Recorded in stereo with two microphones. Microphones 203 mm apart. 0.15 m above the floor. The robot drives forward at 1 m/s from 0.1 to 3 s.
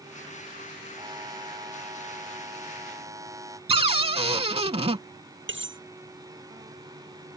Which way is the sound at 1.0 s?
20° right (ahead or behind).